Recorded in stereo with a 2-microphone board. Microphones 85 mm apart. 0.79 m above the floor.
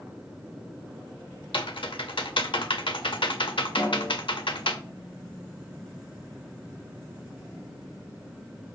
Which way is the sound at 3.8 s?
50° left (ahead or behind).